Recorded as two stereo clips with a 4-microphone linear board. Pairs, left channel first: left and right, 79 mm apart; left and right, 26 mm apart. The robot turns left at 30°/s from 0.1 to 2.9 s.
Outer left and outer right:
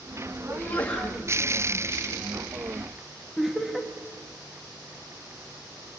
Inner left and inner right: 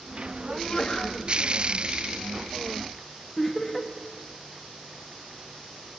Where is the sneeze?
30° left (ahead or behind), 2.5 m; by 1.2 s 10° left (ahead or behind), 2.5 m.